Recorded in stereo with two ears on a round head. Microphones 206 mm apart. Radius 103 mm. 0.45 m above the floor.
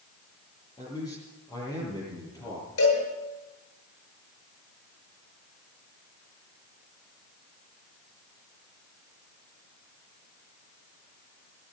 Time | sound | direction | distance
0.8 | a man speaking | 20° left (ahead or behind) | 7.5 m
2.8 | a cowbell | 70° left (ahead or behind) | 9 m